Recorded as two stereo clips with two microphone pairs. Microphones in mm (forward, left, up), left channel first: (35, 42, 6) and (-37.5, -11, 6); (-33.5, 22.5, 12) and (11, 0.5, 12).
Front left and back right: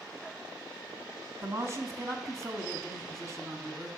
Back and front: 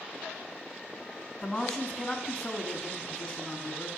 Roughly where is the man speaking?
Behind right.